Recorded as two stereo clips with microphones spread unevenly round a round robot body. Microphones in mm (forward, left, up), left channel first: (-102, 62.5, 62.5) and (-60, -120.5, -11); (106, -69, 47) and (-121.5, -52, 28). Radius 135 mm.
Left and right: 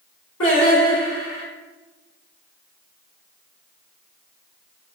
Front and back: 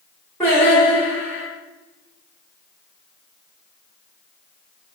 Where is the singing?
75° left, 2 m.